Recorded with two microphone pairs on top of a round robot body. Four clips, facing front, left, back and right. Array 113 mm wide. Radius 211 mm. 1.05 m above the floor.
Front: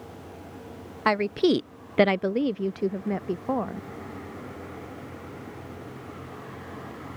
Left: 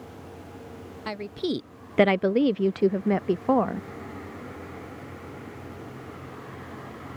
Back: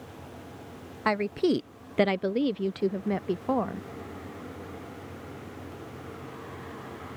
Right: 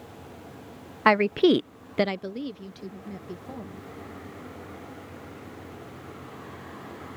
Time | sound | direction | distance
1.1 | a woman speaking | 75° right | ?